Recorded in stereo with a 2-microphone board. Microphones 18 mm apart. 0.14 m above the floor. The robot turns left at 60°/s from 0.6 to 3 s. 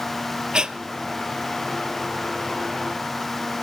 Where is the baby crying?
No baby crying in this recording.